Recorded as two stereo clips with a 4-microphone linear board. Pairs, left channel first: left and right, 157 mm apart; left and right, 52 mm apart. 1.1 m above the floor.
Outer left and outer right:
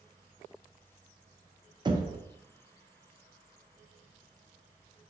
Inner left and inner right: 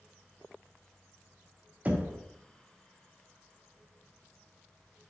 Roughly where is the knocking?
Right.